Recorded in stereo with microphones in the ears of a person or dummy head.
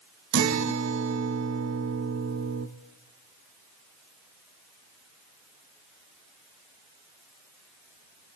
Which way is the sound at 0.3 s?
70° right (ahead or behind).